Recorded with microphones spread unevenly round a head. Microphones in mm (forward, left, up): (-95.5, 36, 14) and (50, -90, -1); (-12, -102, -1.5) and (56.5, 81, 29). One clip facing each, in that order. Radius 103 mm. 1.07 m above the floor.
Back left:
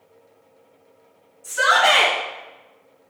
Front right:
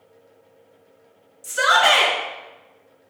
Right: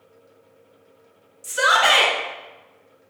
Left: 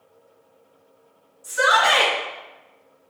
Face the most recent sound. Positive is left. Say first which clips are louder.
# even, left 1 dB
turn(degrees=-75)